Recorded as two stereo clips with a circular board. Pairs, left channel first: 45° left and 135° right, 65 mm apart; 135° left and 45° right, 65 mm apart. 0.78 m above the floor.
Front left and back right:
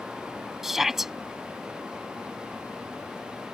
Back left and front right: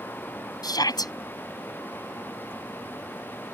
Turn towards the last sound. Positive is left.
turn(degrees=140)